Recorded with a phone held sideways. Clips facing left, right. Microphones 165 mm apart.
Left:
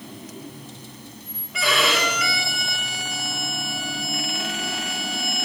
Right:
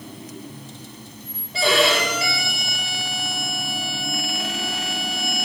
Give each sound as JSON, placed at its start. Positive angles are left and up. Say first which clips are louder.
{"t": 1.5, "sound": "a violin", "louder": "right 4 dB", "side_deg": -30, "distance_m": 8.0}